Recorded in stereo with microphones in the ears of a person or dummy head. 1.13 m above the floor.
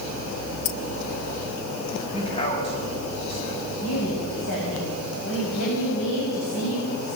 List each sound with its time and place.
0.7 s keys jangling: 40° left (ahead or behind), 0.8 m
2.1 s a man speaking: 35° left (ahead or behind), 7 m
3.8 s a woman speaking: 80° left, 7 m